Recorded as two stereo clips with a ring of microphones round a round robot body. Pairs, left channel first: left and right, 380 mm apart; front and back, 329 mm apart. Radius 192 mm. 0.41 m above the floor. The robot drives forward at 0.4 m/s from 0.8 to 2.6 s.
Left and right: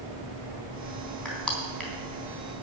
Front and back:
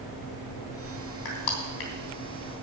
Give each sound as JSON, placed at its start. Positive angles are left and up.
{"t": 1.2, "sound": "crushing", "azimuth_deg": 0, "distance_m": 3.5}